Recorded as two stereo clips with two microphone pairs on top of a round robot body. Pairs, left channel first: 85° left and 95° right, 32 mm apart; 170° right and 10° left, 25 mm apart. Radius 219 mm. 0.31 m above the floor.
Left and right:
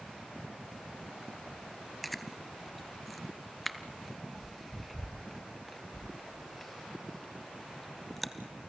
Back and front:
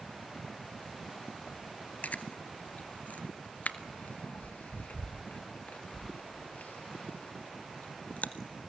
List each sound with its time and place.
2.0 s chewing: 175° left, 0.7 m